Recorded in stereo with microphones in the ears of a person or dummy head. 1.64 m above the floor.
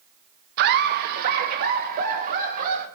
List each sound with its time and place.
0.6 s laughter: 55° right (ahead or behind), 1.4 m; by 2.9 s 50° right (ahead or behind), 4.5 m